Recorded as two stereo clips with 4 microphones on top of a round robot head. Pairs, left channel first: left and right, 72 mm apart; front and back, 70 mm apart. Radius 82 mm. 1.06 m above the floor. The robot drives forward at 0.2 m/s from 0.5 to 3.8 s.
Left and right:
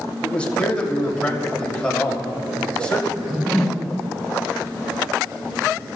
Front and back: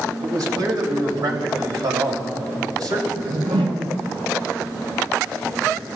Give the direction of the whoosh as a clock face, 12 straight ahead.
6 o'clock.